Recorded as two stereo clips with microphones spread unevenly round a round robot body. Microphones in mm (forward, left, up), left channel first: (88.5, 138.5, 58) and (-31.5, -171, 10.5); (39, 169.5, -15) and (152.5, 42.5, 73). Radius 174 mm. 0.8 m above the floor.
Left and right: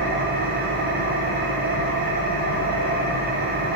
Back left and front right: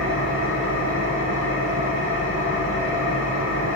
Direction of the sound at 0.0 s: Straight behind.